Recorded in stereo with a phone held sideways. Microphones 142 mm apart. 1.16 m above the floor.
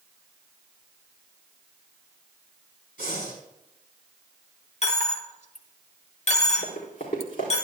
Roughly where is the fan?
No fan in this recording.